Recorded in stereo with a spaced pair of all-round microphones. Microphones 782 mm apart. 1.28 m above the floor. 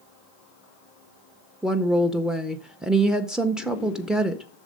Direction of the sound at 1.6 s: Centre (ahead or behind).